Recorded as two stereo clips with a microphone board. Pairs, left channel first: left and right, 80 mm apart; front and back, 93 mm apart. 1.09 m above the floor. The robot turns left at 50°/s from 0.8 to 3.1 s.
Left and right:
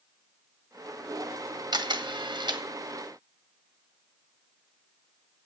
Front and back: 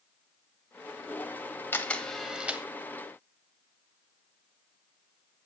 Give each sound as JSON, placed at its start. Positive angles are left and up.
{"t": 1.7, "sound": "a camera shutter", "azimuth_deg": -70, "distance_m": 1.2}